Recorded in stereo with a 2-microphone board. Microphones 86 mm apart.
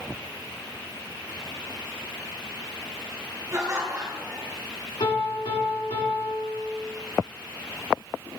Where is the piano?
85° left, 3 m.